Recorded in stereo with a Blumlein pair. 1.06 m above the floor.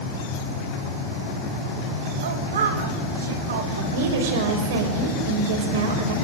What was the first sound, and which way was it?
A woman speaking, 60° right.